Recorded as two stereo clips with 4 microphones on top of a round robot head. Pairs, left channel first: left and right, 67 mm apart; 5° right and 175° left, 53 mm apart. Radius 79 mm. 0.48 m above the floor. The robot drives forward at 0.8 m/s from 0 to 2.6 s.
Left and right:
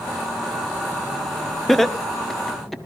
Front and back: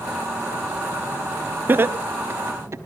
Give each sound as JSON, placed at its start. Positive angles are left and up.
{"t": 1.7, "sound": "laughter", "azimuth_deg": 175, "distance_m": 1.1}